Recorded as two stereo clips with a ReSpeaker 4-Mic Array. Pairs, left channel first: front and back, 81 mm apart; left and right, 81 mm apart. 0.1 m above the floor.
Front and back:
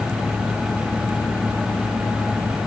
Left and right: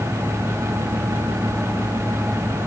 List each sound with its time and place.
Only background noise.